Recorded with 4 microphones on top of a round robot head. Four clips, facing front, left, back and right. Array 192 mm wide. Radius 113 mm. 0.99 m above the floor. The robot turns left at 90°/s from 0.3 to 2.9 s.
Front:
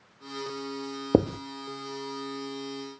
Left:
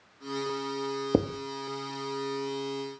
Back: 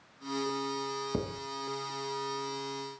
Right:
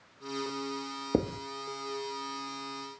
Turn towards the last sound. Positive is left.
turn(degrees=-145)